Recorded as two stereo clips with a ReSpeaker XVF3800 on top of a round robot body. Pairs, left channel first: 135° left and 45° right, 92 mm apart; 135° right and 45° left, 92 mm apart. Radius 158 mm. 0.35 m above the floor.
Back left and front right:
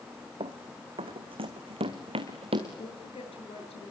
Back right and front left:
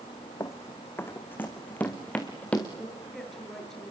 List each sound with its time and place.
0.4 s running footsteps: 75° right, 1.7 m; by 2.7 s 60° right, 3 m
2.8 s a woman speaking: 140° left, 8 m